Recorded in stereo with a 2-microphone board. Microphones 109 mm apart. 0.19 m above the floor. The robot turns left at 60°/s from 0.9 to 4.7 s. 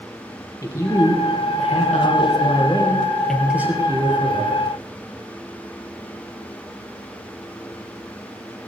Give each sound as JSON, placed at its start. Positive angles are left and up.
{"t": 0.6, "sound": "a man speaking", "azimuth_deg": 150, "distance_m": 4.0}